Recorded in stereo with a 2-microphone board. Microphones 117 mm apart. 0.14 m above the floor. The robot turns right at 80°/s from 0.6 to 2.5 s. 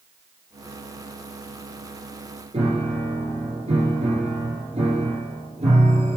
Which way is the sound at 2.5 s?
65° right (ahead or behind).